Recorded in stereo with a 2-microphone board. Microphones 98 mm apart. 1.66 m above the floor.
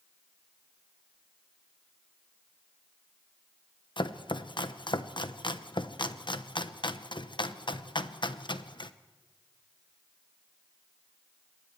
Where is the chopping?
55° left (ahead or behind), 0.9 m.